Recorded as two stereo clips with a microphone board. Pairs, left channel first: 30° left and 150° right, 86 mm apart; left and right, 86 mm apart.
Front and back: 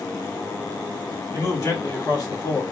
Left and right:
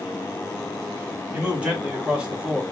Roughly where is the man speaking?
Ahead.